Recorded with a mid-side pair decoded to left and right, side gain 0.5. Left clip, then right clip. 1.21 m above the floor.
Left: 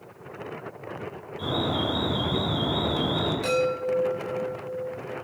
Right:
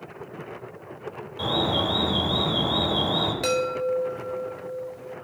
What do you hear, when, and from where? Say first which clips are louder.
1.4 s an alarm: right 3 dB; 60° right, 4 m
3.4 s a chime: even; 55° right, 4 m